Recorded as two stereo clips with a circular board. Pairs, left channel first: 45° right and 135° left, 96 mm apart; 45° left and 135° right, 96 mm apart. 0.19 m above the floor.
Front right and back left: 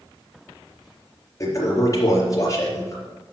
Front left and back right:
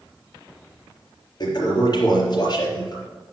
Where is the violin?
I don't hear a violin.